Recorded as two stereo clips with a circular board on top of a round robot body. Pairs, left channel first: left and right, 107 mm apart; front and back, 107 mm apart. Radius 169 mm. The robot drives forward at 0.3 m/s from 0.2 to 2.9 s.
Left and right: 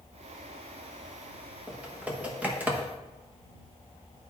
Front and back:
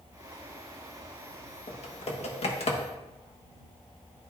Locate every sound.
1.7 s typing on a keyboard: 10° right, 1.4 m; by 2.8 s 15° right, 1.1 m